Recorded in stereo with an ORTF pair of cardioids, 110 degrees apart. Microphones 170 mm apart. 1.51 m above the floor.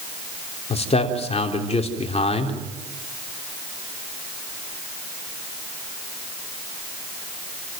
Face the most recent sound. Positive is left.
turn(degrees=40)